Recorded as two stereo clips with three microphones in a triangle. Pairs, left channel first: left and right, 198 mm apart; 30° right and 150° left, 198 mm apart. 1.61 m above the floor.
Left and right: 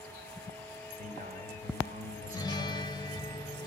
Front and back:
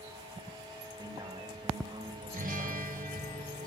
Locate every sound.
1.0 s a man speaking: 135° right, 8 m
2.3 s a guitar: 150° left, 1.0 m